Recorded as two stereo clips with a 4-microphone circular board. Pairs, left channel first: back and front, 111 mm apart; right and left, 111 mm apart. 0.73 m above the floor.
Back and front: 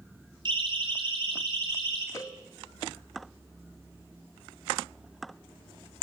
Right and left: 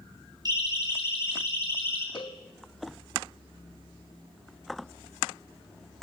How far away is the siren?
About 7 m.